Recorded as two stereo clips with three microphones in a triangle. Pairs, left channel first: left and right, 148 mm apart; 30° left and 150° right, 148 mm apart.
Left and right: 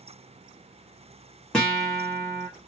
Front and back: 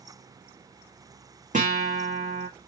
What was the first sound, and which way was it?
A guitar, 175° left.